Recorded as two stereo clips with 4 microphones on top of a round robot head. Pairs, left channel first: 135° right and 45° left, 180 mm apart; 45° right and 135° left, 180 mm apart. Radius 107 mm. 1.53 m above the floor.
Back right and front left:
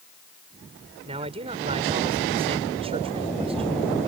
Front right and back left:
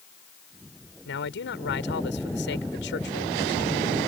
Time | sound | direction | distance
1.1 | a man speaking | 15° right | ?